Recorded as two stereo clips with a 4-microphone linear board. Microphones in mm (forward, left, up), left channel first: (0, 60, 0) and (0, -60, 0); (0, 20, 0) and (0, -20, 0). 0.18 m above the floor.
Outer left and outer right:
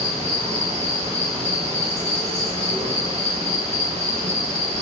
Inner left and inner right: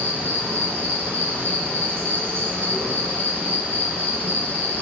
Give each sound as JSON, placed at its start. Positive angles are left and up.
{"t": 0.0, "sound": "an insect", "side_deg": -65, "distance_m": 0.8}